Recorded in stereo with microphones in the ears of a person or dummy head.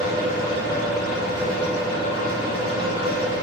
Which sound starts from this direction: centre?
A fan, at 0.0 s.